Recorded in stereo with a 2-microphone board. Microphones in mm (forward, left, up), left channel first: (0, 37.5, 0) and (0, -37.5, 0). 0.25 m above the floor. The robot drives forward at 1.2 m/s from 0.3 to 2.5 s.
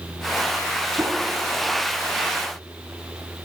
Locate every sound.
1.0 s a whoosh: 35° right (ahead or behind), 1.4 m